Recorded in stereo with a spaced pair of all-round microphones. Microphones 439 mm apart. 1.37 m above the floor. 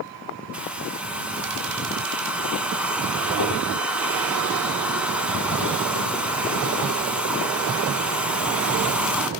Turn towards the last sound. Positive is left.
turn(degrees=-5)  # may be behind; listen again after turning